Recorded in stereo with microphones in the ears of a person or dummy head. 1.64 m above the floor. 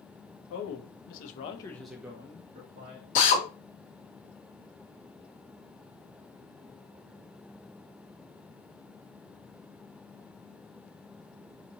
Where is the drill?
45° left (ahead or behind), 0.9 m.